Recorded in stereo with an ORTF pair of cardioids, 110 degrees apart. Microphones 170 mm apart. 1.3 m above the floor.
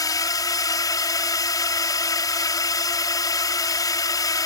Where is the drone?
20° left.